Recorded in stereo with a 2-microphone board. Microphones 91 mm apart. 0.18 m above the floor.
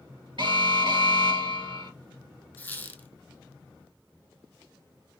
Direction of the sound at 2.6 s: 20° left (ahead or behind).